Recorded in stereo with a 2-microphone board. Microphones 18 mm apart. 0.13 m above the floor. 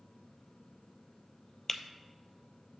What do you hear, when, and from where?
1.7 s breaking glass: 15° left (ahead or behind), 0.6 m